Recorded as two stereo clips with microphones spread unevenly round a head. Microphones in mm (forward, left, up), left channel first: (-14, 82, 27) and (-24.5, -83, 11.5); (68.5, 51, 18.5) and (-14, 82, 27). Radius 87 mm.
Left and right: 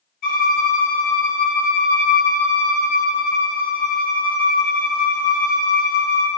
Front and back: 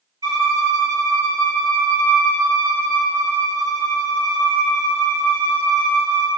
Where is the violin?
135° left, 1.7 m.